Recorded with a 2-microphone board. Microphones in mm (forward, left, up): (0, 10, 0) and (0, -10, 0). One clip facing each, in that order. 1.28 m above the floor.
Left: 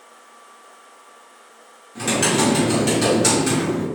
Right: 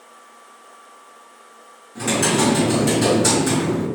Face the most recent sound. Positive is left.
turn(degrees=35)  # may be behind; listen again after turning